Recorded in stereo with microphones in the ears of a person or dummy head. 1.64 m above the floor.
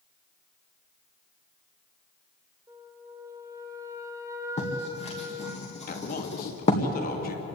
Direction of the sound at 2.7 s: 15° right (ahead or behind).